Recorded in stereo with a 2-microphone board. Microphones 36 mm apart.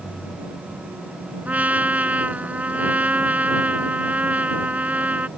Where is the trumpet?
45° right (ahead or behind).